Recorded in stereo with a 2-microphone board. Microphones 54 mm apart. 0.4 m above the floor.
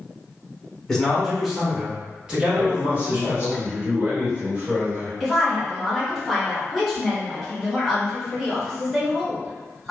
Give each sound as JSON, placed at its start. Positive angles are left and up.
{"t": 0.9, "sound": "a man speaking", "side_deg": 10, "distance_m": 0.8}
{"t": 2.5, "sound": "a man speaking", "side_deg": -40, "distance_m": 1.7}
{"t": 5.2, "sound": "a woman speaking", "side_deg": 0, "distance_m": 1.2}